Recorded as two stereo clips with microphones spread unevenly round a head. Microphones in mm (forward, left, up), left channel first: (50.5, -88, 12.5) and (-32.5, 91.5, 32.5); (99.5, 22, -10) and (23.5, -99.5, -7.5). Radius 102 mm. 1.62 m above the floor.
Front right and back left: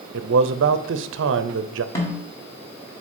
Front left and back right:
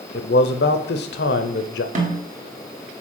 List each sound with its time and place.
0.1 s a man speaking: 85° left, 0.6 m
1.9 s a snare drum: 140° right, 1.6 m